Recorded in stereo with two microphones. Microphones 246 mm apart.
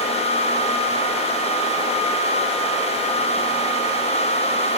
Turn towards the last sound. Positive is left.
No sound to turn to.